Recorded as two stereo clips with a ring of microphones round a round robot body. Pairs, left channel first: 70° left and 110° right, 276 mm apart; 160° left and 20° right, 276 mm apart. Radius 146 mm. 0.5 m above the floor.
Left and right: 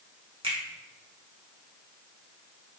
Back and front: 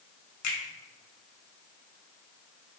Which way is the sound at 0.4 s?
175° left.